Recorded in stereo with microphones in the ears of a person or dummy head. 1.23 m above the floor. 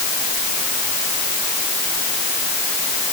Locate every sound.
Only background noise.